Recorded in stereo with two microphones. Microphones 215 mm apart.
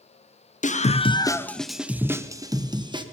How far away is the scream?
About 0.7 m.